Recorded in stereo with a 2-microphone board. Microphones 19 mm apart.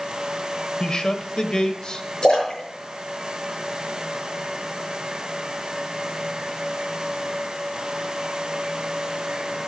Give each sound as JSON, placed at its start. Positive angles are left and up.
{"t": 0.8, "sound": "a man speaking", "side_deg": 40, "distance_m": 1.2}
{"t": 2.2, "sound": "a splash", "side_deg": 40, "distance_m": 7.0}